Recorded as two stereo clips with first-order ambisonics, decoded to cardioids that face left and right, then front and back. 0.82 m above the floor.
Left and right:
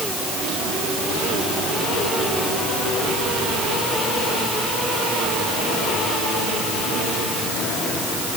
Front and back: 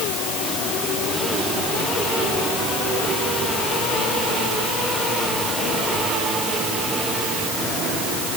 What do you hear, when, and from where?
Only background noise.